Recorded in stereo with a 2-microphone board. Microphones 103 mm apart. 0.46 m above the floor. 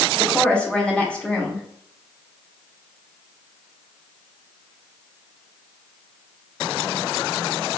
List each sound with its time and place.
0.2 s a woman speaking: 10° left (ahead or behind), 1.4 m